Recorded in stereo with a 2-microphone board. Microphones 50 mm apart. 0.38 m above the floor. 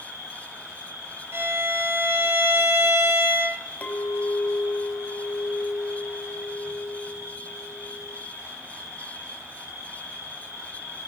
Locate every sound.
0.0 s an insect: 45° right (ahead or behind), 6.5 m
1.3 s a violin: 55° right (ahead or behind), 1.4 m
3.8 s a clink: 35° left (ahead or behind), 1.2 m